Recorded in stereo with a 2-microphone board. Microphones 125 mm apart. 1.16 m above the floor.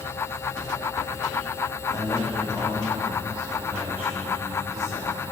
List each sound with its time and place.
1.9 s a man speaking: 30° left (ahead or behind), 1.7 m; by 5.2 s 25° right (ahead or behind), 5 m